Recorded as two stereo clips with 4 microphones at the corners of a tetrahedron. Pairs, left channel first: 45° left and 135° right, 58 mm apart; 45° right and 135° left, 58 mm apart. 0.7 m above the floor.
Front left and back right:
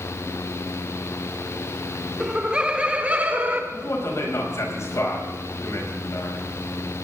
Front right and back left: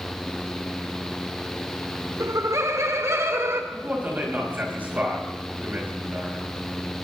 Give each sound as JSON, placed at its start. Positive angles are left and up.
{"t": 2.2, "sound": "laughter", "azimuth_deg": 145, "distance_m": 1.7}
{"t": 3.7, "sound": "a man speaking", "azimuth_deg": 75, "distance_m": 5.0}